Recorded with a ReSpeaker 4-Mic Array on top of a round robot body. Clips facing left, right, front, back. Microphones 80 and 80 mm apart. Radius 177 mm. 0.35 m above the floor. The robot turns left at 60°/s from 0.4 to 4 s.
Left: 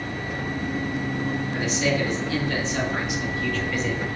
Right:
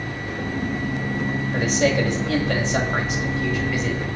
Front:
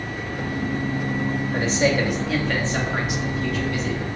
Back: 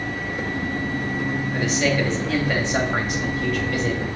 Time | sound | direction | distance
1.5 | a man speaking | 40° right | 3 m